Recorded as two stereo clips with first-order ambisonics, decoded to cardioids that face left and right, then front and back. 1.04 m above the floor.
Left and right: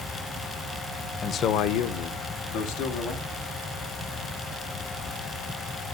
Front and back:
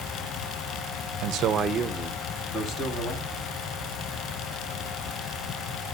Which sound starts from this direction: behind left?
A man speaking, at 1.2 s.